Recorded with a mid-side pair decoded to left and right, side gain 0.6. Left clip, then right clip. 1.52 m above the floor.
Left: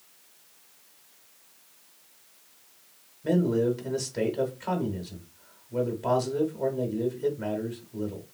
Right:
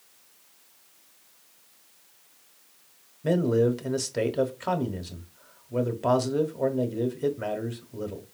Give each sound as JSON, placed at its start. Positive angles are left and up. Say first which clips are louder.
{"t": 3.2, "sound": "a man speaking", "louder": "right 2 dB", "azimuth_deg": -35, "distance_m": 0.8}